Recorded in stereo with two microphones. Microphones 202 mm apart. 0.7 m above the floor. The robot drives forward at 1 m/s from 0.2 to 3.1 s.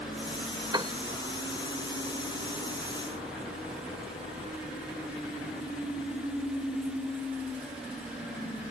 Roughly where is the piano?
Right.